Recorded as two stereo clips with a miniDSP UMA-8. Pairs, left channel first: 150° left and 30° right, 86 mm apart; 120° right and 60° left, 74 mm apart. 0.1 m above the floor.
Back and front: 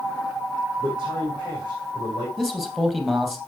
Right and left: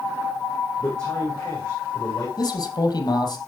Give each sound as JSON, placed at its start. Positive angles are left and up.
{"t": 0.8, "sound": "a man speaking", "azimuth_deg": -45, "distance_m": 5.0}
{"t": 2.4, "sound": "a man speaking", "azimuth_deg": -120, "distance_m": 2.5}